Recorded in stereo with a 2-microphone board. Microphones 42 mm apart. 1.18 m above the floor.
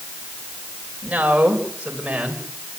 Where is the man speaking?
30° right (ahead or behind), 5 m; by 2.4 s 20° right (ahead or behind), 5.5 m.